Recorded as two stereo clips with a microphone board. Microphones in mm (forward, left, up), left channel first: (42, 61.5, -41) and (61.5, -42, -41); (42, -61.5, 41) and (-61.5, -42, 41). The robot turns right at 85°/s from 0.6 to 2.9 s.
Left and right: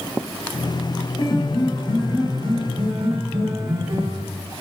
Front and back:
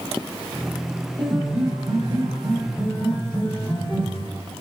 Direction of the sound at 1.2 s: 120° left.